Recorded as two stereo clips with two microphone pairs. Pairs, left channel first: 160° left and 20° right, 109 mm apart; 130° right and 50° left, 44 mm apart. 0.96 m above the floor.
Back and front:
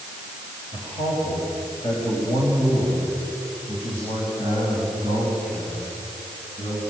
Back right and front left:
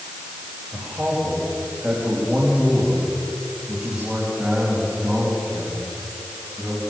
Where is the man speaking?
115° left, 4.5 m; by 6.8 s 135° left, 7 m.